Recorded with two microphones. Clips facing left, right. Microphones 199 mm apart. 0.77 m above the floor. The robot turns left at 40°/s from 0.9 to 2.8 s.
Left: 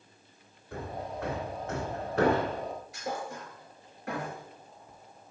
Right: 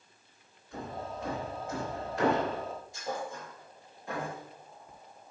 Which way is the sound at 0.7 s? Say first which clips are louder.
Left 2 dB; 60° left (ahead or behind).